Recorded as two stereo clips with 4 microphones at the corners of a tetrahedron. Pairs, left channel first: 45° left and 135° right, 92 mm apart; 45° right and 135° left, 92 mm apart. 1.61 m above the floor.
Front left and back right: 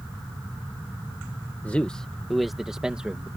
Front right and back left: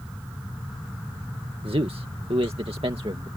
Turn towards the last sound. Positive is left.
turn(degrees=150)